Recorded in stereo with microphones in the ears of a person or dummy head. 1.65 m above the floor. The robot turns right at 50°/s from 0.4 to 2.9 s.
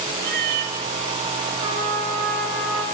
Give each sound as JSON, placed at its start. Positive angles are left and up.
{"t": 0.2, "sound": "a cat meowing", "side_deg": -55, "distance_m": 1.8}
{"t": 1.6, "sound": "a trumpet", "azimuth_deg": -155, "distance_m": 9.0}